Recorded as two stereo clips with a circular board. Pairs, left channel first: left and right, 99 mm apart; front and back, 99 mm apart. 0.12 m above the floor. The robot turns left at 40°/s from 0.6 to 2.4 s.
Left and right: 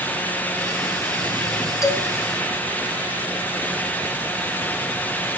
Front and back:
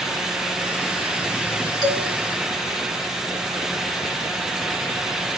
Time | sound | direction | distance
1.8 | a man speaking | 145° left | 3 m